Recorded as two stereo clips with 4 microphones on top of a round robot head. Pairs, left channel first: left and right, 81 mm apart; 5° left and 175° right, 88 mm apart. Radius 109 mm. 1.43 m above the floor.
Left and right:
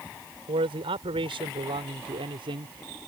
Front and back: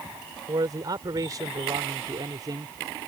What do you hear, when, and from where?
0.5 s a man speaking: 115° right; by 3.1 s 120° right